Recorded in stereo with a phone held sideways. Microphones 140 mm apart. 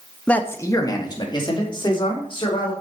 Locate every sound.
0.3 s a man speaking: 5° left (ahead or behind), 0.9 m; by 2.7 s 35° left (ahead or behind), 4.5 m